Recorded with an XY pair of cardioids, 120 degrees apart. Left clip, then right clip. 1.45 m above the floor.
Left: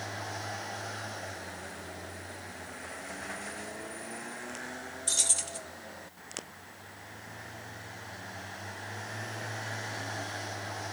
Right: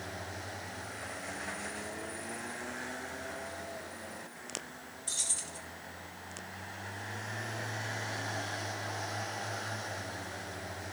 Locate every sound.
5.1 s keys jangling: 45° left, 1.2 m